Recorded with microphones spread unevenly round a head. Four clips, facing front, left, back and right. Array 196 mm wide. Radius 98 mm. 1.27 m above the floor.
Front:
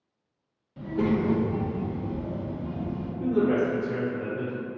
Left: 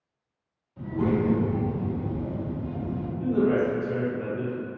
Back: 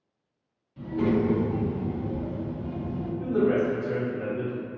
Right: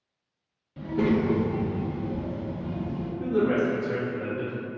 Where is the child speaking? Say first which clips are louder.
Right 1 dB, back 1 dB; 65° right, 0.7 m; by 3.1 s 170° right, 1.4 m.